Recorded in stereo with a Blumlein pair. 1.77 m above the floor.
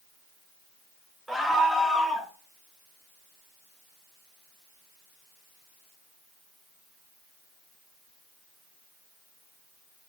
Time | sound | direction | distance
1.3 | a scream | straight ahead | 1.1 m